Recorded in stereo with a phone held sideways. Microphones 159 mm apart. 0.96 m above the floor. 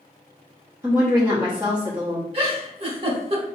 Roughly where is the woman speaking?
Centre.